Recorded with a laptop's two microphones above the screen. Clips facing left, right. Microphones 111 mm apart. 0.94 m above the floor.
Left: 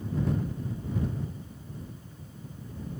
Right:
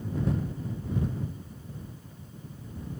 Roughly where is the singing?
No singing in this recording.